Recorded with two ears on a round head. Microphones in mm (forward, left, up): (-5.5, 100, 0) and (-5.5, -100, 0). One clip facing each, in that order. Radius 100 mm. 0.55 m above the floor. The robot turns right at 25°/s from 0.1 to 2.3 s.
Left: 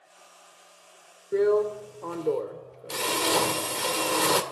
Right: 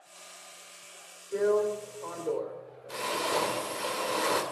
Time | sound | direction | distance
1.3 | a drill | 40° left (ahead or behind) | 2.5 m